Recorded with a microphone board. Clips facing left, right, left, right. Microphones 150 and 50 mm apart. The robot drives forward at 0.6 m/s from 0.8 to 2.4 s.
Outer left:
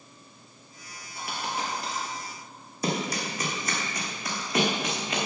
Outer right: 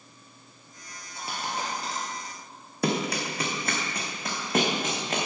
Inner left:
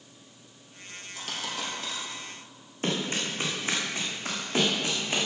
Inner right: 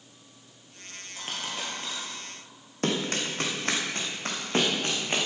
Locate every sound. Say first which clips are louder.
1.1 s a dropped coin: outer left 1 dB, even; 30° right (ahead or behind), 4 m; by 2.0 s 25° right (ahead or behind), 4.5 m
2.8 s running footsteps: outer right 2 dB, inner right 1 dB; 65° right (ahead or behind), 2 m; by 5.3 s 45° right (ahead or behind), 3 m